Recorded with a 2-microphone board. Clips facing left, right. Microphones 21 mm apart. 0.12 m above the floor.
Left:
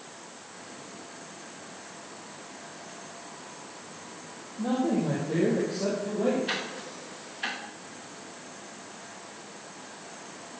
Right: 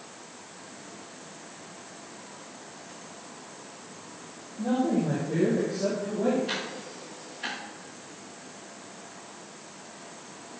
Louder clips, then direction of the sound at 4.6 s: Right 1 dB; 35° left (ahead or behind).